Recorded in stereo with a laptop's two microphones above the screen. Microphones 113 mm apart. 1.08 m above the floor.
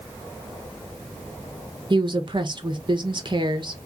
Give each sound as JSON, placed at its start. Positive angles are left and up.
{"t": 1.9, "sound": "a woman speaking", "side_deg": -45, "distance_m": 1.3}